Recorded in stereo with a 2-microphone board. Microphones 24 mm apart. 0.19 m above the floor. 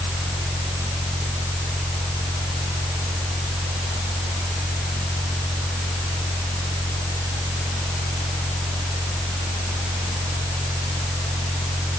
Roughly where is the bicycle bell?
I don't hear a bicycle bell.